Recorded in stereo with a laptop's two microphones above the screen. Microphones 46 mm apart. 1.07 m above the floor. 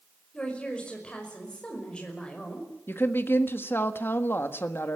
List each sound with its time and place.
0.3 s a woman speaking: 20° left (ahead or behind), 5.5 m
2.9 s a woman speaking: 45° left (ahead or behind), 1.5 m